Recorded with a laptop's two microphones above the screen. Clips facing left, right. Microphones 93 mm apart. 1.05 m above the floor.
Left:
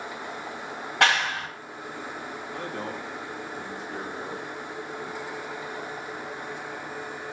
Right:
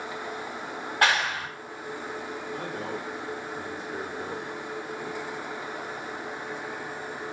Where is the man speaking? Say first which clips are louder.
Left 1 dB; 65° left (ahead or behind), 1.1 m.